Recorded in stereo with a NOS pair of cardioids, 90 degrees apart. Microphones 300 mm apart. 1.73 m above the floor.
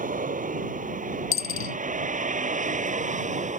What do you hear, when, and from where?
0.0 s a vehicle: 25° right
1.3 s a dropped coin: 45° left